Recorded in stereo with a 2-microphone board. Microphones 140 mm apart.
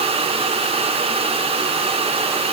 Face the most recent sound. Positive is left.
No sound to turn to.